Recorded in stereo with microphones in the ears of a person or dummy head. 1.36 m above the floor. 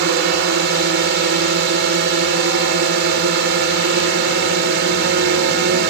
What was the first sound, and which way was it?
A drone, 60° right (ahead or behind).